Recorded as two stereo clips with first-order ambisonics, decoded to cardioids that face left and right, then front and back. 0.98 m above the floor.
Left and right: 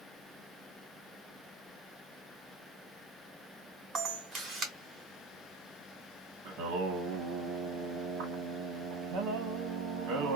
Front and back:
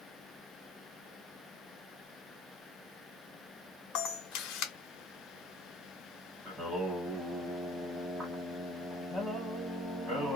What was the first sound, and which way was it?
A camera shutter, 30° right.